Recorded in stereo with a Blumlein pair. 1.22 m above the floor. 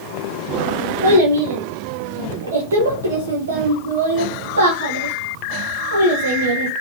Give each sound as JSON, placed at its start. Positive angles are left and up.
{"t": 1.0, "sound": "a child speaking", "azimuth_deg": -65, "distance_m": 0.6}